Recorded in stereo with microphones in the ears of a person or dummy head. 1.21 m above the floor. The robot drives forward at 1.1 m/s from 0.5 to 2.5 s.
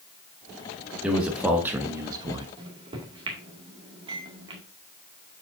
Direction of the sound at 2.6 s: 30° right (ahead or behind).